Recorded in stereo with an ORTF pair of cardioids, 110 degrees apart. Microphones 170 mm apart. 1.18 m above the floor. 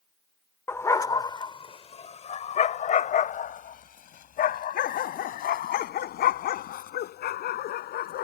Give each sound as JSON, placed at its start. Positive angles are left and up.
{"t": 0.7, "sound": "a dog barking", "azimuth_deg": 15}